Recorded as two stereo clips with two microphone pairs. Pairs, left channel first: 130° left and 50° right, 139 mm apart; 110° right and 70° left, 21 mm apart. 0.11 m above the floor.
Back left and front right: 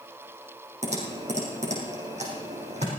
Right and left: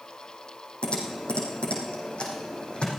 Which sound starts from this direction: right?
Typing on a keyboard, at 0.8 s.